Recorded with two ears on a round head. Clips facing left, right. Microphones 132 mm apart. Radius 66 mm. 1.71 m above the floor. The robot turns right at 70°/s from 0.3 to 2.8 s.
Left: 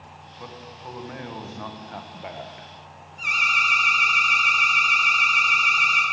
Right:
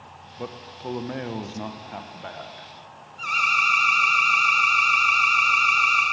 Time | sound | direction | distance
0.4 | a man speaking | 115° right | 0.9 m
3.2 | an alarm | 20° left (ahead or behind) | 2.5 m